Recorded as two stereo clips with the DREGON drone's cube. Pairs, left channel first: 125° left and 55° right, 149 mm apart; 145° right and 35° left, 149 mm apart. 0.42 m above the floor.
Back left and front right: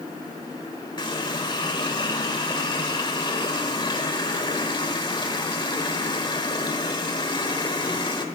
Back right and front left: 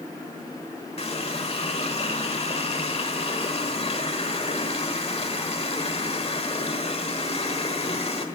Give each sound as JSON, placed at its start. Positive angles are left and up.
{"t": 1.0, "sound": "a running tap", "azimuth_deg": 180, "distance_m": 1.3}